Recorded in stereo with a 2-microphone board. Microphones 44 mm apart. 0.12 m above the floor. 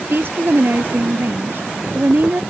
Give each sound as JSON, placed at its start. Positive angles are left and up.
{"t": 0.1, "sound": "a woman speaking", "side_deg": -55}